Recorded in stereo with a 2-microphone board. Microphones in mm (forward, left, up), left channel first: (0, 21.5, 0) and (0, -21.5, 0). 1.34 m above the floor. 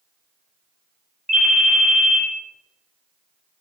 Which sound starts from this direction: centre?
A ringtone, at 1.3 s.